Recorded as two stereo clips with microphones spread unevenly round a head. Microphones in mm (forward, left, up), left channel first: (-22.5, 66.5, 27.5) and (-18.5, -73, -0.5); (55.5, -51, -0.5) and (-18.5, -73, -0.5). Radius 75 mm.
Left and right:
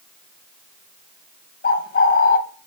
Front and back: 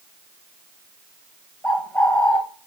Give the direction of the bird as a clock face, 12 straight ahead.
9 o'clock.